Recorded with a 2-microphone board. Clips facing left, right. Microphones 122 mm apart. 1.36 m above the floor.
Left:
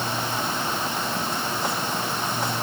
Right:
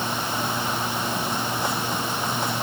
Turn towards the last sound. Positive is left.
No sound to turn to.